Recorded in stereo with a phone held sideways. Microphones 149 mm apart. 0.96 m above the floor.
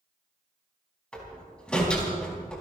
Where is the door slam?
5° left (ahead or behind), 4.5 m.